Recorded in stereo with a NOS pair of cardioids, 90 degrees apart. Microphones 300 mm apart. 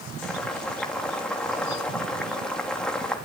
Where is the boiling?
5° left, 3.5 m.